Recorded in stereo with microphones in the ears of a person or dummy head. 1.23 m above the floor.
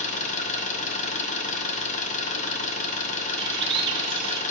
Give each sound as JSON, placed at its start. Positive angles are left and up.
{"t": 0.0, "sound": "an engine running", "side_deg": 35, "distance_m": 0.7}
{"t": 3.4, "sound": "a bird", "side_deg": -30, "distance_m": 0.8}